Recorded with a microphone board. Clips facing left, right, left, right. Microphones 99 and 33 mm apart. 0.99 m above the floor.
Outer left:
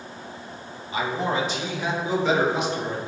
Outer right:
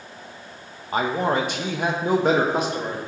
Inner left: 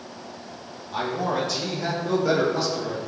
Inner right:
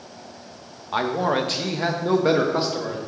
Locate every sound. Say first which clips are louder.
0.9 s a man speaking: outer right 3 dB, inner right 4 dB; 45° right (ahead or behind), 1.2 m; by 3.0 s 40° right (ahead or behind), 2 m